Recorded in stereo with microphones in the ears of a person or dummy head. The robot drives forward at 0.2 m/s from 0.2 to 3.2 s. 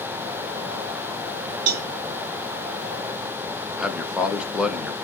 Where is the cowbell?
85° right, 0.5 m.